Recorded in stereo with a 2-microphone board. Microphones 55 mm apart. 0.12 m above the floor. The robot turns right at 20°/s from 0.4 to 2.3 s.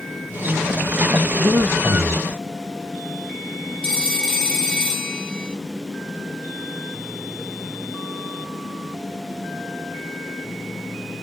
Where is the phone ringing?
10° left (ahead or behind), 1.8 m.